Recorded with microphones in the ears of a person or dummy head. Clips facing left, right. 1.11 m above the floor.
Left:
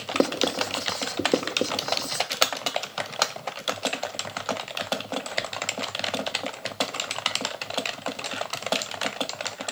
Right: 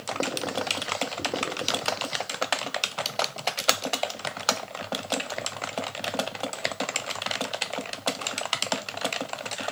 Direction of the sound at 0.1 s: 55° left (ahead or behind).